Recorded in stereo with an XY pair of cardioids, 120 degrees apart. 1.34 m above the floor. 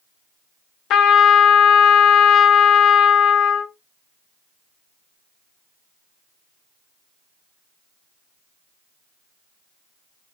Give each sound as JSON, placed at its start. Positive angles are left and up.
{"t": 0.9, "sound": "a trumpet", "azimuth_deg": 70, "distance_m": 0.6}